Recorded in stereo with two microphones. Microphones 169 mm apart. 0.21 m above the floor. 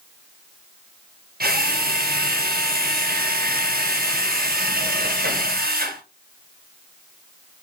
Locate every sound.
1.4 s a drill: 65° right (ahead or behind), 3 m